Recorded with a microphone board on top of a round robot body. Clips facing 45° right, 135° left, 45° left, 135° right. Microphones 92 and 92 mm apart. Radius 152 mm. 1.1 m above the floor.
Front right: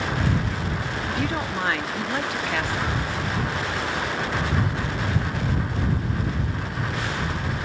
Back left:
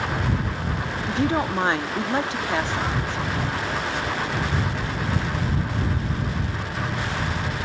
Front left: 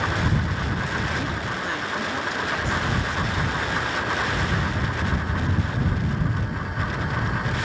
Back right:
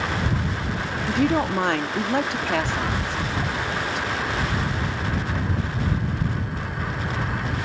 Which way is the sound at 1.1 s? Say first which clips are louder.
Back left 6 dB, back right 7 dB; 165° right.